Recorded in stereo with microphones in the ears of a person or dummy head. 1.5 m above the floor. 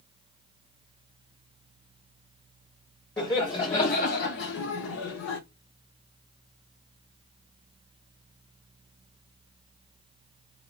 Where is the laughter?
25° left (ahead or behind), 0.8 m; by 5.4 s 60° left (ahead or behind), 0.8 m.